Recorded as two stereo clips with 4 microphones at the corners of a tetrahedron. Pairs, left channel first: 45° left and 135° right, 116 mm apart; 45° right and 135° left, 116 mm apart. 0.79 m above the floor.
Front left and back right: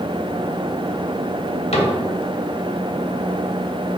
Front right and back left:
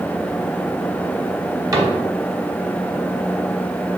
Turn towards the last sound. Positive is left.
turn(degrees=75)